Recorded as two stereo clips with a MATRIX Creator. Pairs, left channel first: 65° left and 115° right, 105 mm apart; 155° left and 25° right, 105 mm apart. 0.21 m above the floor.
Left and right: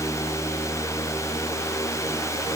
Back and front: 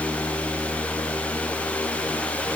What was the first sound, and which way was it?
Only background noise.